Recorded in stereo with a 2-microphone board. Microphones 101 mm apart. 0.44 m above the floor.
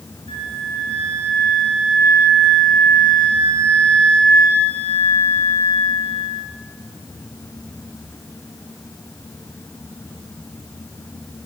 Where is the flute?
65° left (ahead or behind), 7 m.